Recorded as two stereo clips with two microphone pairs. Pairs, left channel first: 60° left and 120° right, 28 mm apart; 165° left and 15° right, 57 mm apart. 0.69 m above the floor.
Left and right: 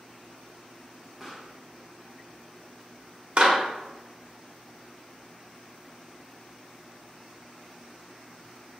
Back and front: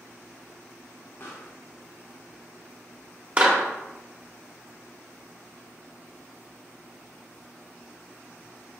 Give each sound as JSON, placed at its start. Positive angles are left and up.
{"t": 1.2, "sound": "a pop", "azimuth_deg": 165, "distance_m": 0.9}
{"t": 3.4, "sound": "a clap", "azimuth_deg": -80, "distance_m": 1.0}